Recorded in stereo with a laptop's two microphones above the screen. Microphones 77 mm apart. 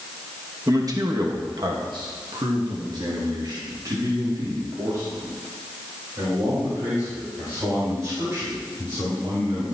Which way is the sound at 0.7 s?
45° right (ahead or behind).